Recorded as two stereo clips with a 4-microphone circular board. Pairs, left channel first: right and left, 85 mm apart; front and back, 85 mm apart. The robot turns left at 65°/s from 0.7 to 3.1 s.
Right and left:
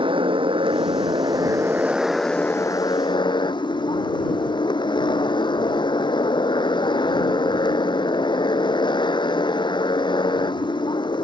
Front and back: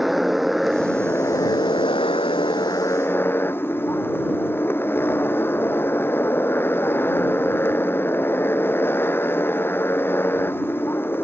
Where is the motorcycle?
95° left; by 11.3 s 65° right.